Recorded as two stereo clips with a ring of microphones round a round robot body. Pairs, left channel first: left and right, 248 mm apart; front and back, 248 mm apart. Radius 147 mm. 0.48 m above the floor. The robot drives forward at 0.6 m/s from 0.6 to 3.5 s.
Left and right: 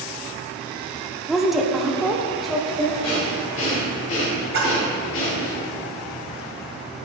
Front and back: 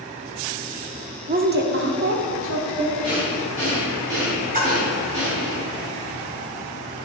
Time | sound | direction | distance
1.3 | a woman speaking | straight behind | 0.8 m
3.0 | breathing | 110° left | 2 m
4.5 | a splash | 125° right | 1.8 m